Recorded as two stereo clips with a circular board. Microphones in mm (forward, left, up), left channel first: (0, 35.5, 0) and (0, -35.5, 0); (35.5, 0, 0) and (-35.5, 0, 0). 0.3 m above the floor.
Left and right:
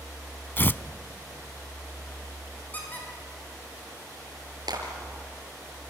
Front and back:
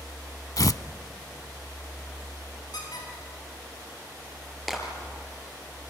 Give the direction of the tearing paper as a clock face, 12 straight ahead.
11 o'clock.